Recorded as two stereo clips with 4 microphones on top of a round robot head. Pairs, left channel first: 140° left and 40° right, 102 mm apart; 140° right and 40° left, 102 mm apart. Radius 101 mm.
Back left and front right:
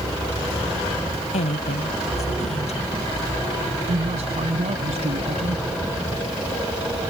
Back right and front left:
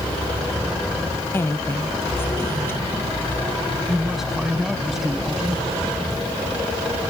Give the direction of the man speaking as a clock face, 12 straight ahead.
2 o'clock.